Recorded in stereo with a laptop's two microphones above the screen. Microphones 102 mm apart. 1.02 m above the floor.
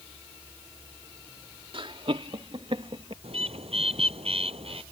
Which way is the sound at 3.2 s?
70° right (ahead or behind).